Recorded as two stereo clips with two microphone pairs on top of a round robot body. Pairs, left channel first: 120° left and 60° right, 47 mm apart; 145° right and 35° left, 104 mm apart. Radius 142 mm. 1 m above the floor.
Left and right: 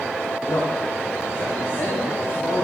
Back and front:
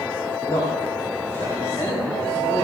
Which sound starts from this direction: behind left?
A man speaking, at 0.5 s.